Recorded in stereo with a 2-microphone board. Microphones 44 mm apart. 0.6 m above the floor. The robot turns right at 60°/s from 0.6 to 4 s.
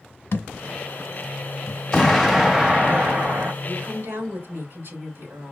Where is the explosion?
145° left, 2.0 m; by 3.5 s 115° right, 2.0 m.